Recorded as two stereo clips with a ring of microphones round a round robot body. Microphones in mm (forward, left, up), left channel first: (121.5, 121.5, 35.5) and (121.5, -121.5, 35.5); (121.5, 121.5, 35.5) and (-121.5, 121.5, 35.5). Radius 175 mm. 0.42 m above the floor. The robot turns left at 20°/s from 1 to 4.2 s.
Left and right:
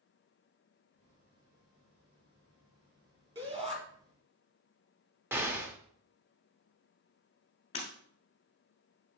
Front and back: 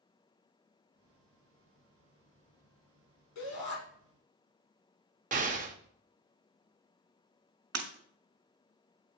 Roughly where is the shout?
Ahead.